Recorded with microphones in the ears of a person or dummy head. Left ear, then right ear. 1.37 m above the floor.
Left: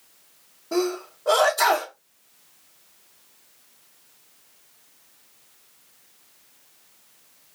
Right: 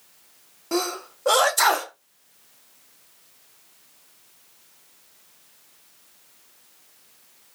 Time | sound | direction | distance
0.7 | a sneeze | 70° right (ahead or behind) | 1.3 m